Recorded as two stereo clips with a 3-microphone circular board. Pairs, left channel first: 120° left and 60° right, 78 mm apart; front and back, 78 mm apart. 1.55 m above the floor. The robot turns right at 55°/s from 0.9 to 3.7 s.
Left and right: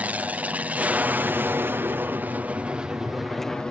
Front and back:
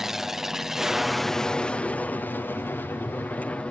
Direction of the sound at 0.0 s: 100° right.